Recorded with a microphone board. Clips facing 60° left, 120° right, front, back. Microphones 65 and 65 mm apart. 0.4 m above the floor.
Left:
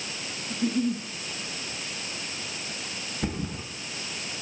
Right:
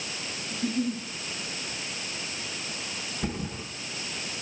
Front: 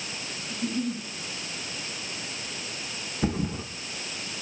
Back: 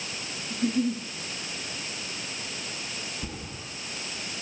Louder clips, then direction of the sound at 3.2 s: Left 2 dB, front 10 dB; 15° right.